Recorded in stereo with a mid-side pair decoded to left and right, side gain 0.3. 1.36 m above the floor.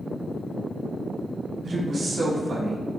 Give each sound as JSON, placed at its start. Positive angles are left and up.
{"t": 1.6, "sound": "a woman speaking", "azimuth_deg": -65, "distance_m": 1.7}